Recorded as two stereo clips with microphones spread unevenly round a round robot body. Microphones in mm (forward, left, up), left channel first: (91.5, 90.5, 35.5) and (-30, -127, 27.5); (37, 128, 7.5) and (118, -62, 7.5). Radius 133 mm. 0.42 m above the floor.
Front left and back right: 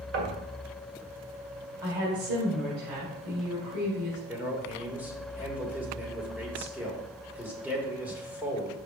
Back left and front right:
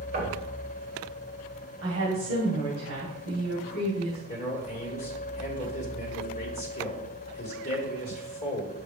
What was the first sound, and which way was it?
Knocking, 115° right.